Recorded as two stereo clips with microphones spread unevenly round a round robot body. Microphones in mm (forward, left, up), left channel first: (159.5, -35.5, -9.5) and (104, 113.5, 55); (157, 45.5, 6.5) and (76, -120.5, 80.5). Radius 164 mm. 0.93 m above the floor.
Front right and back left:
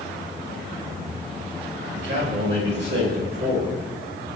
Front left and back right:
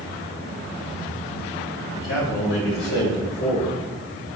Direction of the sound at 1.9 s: 95° left.